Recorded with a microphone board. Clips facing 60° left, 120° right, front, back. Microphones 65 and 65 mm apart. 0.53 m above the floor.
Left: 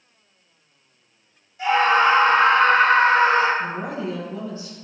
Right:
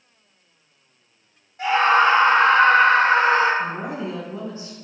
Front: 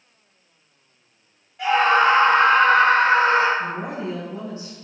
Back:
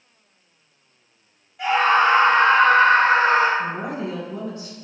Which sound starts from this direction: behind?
A woman speaking, at 3.6 s.